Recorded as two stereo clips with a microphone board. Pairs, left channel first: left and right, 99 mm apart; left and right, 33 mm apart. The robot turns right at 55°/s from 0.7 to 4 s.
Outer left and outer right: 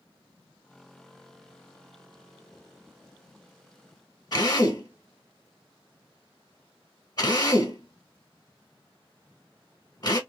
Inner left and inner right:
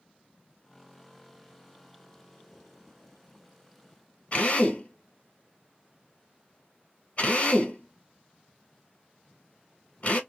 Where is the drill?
45° left (ahead or behind), 1.4 m.